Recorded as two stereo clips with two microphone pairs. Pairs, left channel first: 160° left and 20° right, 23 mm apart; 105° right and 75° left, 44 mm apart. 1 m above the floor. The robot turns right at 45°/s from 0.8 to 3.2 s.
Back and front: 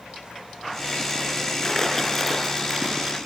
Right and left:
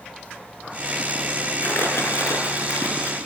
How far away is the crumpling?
About 5.5 m.